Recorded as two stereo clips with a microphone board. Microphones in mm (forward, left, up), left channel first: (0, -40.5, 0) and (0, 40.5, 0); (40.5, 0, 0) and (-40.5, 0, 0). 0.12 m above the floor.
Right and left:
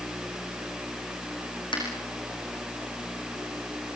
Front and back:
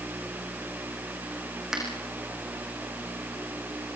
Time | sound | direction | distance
1.7 | a finger snap | 95° right | 7.5 m